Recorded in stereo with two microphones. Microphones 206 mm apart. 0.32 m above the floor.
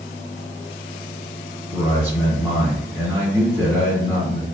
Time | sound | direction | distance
1.7 | a man speaking | 10° right (ahead or behind) | 1.9 m